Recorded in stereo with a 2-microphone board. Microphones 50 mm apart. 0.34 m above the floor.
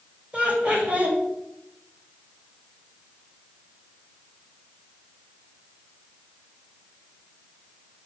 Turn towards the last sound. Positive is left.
turn(degrees=-30)  # may be behind; listen again after turning